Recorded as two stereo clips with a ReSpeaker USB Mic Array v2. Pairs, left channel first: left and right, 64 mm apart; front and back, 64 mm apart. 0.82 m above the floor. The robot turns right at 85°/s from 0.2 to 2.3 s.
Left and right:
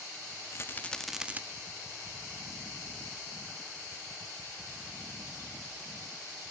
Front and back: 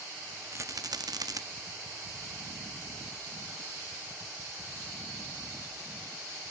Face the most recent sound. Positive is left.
turn(degrees=-75)